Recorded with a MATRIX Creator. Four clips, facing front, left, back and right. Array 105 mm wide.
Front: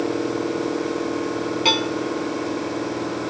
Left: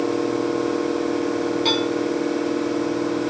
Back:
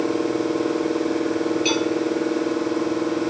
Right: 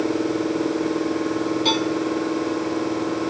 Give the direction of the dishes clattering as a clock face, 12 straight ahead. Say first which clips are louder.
Even, back 1 dB; 12 o'clock.